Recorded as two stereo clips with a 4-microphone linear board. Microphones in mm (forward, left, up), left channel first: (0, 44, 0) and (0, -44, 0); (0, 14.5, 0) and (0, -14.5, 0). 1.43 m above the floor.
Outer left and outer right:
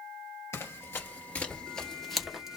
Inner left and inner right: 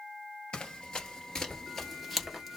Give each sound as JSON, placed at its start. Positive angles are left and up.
{"t": 0.5, "sound": "running footsteps", "side_deg": 30, "distance_m": 1.7}